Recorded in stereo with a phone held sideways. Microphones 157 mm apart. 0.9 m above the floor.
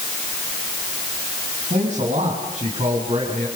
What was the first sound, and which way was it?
A man speaking, 50° right (ahead or behind).